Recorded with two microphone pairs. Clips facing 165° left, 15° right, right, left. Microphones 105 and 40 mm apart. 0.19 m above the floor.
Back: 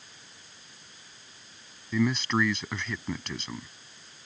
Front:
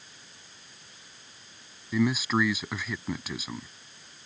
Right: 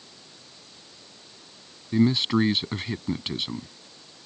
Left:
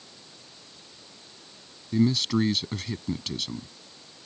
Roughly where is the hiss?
I don't hear a hiss.